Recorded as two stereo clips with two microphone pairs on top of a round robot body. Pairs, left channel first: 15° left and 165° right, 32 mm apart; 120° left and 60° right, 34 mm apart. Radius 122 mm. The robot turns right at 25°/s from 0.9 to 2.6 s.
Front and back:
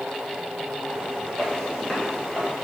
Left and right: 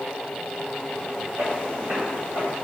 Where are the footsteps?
45° right, 0.8 m; by 2.6 s 65° right, 0.9 m.